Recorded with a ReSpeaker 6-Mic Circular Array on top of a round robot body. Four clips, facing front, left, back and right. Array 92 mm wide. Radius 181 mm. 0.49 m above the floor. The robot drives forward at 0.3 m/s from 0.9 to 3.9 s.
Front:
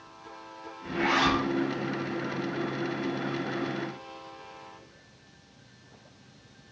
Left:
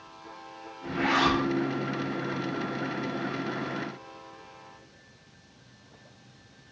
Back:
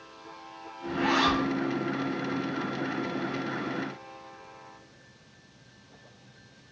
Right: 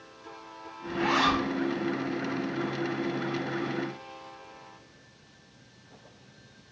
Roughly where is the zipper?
Ahead left.